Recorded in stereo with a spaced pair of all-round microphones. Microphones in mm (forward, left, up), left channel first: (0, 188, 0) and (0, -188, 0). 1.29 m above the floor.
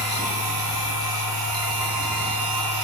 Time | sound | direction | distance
0.0 | a machine running | 10° right (ahead or behind) | 2.5 m